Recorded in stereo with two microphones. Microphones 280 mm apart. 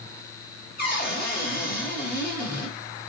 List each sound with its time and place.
0.8 s a cupboard door: 35° left (ahead or behind), 2.0 m